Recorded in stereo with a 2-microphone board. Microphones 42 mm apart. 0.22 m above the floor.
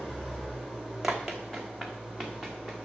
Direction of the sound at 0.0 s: Centre (ahead or behind).